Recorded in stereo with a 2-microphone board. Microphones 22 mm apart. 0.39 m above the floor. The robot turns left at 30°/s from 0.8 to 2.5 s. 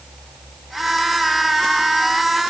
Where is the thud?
No thud in this recording.